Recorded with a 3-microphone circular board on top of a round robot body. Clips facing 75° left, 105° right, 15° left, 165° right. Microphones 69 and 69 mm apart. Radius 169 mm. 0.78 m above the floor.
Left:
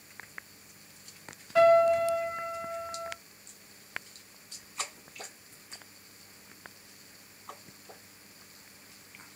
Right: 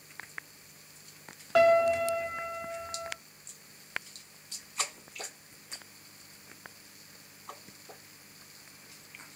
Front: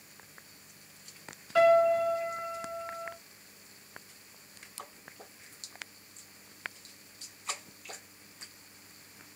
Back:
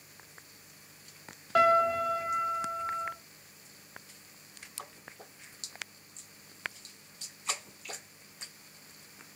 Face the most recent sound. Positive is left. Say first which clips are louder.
# left 2 dB, front 2 dB
turn(degrees=-125)